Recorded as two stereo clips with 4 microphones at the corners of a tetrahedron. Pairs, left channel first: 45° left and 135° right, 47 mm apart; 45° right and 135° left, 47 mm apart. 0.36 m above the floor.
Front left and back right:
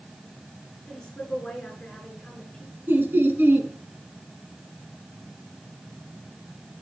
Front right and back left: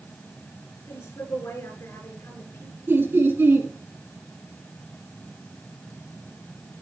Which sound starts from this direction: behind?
Laughter, at 2.9 s.